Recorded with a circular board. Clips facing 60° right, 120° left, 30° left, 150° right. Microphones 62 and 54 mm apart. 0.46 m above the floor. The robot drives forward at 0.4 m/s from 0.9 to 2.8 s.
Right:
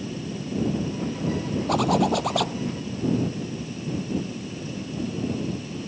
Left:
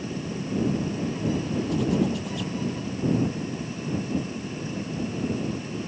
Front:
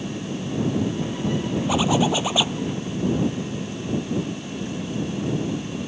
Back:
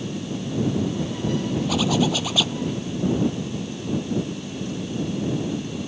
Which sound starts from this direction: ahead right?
A zipper, at 1.7 s.